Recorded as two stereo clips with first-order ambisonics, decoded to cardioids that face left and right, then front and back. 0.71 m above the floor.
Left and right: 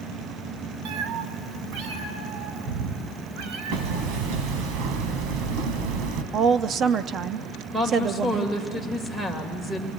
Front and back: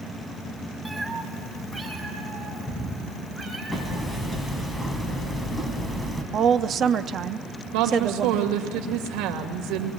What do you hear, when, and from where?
0.8 s a cat meowing: 95° right, 1.7 m
3.7 s hammering: 85° right, 2.5 m
6.3 s a woman speaking: 135° right, 0.7 m
7.7 s a woman speaking: 175° right, 2.5 m